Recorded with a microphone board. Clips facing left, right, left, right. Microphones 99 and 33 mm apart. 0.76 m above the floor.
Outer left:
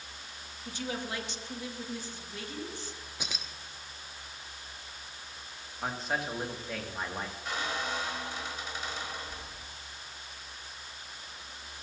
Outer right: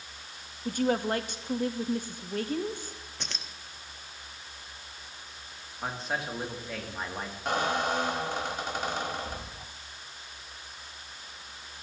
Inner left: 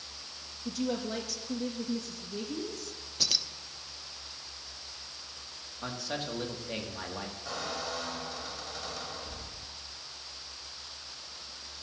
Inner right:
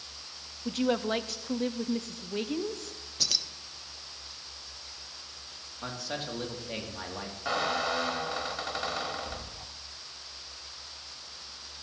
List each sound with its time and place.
0.7 s a woman speaking: 50° right (ahead or behind), 0.7 m
3.2 s keys jangling: 10° left (ahead or behind), 0.6 m
5.8 s a man speaking: centre (ahead or behind), 1.6 m
7.5 s a squeak: 55° right (ahead or behind), 0.8 m